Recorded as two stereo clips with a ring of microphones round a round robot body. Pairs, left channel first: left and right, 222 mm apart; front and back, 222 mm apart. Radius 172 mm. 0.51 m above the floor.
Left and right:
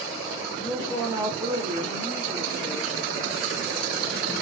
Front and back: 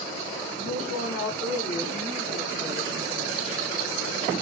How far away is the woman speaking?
About 1.9 m.